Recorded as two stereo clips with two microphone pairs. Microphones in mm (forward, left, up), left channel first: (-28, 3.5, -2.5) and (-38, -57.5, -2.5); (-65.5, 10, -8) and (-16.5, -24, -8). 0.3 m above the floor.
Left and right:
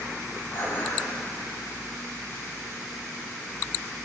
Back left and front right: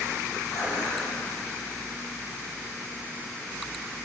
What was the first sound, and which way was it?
Dishes clattering, 135° left.